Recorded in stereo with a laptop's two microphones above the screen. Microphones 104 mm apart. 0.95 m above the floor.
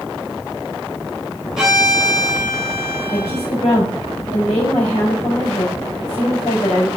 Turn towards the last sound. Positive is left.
turn(degrees=85)